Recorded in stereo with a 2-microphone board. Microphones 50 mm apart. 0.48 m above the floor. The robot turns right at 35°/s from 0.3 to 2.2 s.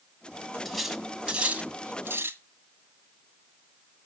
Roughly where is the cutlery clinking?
Centre.